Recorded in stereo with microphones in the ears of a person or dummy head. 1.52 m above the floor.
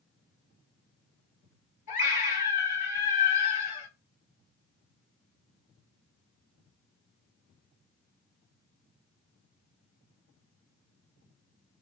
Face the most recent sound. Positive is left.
turn(degrees=40)  # may be behind; listen again after turning